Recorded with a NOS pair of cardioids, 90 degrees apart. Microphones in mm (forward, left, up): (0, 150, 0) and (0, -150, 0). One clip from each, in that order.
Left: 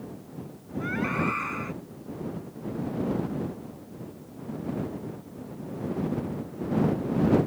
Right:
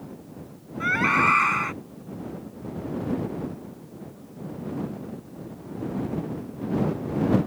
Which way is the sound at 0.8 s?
70° right.